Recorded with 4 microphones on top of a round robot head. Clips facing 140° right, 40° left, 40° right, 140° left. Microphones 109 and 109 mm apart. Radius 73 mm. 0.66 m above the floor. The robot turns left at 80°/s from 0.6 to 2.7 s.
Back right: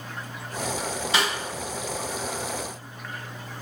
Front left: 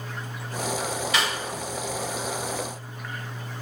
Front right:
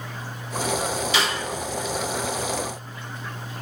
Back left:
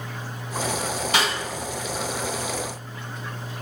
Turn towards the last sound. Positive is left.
turn(degrees=40)